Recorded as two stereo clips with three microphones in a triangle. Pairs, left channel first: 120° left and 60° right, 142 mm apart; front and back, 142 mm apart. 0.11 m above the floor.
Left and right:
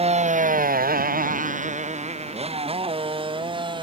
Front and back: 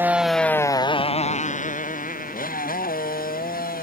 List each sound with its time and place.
0.0 s a motorcycle: 105° right; by 3.8 s 5° right